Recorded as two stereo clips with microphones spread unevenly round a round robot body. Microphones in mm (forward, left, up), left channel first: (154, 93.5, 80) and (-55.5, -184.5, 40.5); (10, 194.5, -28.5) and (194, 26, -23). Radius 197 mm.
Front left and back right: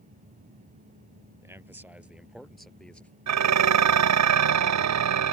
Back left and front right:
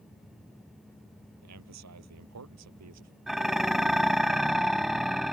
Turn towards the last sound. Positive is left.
turn(degrees=-130)